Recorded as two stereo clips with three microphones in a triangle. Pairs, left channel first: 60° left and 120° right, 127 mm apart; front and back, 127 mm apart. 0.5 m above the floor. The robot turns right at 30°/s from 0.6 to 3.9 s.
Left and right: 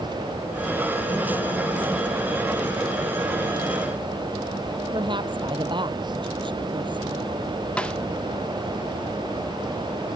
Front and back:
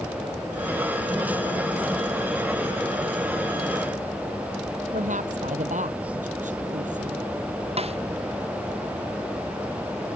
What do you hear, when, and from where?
4.9 s a woman speaking: 170° right
7.8 s a snare drum: 145° left